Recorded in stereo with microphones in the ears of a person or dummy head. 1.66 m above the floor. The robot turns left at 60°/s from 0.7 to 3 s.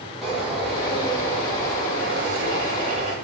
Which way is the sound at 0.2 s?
10° right.